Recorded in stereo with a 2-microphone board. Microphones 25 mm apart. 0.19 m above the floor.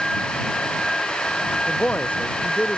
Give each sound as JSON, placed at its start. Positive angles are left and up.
{"t": 1.7, "sound": "a man speaking", "side_deg": 70}